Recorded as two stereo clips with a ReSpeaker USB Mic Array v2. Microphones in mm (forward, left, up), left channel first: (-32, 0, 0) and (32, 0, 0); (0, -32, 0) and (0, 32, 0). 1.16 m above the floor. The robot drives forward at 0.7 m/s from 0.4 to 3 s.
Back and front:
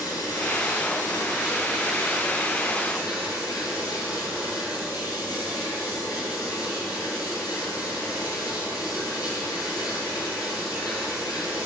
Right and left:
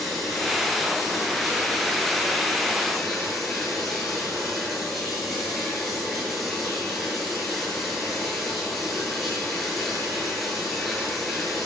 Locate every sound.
0.0 s running water: straight behind, 8.5 m